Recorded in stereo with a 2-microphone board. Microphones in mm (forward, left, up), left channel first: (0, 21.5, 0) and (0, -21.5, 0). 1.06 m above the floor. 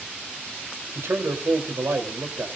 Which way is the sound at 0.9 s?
85° right.